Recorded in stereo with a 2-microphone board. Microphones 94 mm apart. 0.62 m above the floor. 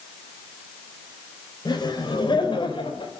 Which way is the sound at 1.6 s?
50° left (ahead or behind).